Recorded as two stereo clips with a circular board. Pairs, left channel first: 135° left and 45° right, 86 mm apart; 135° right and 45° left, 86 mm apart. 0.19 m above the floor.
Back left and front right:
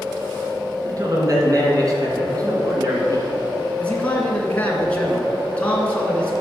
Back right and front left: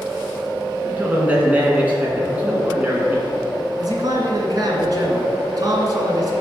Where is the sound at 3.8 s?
65° left, 2 m.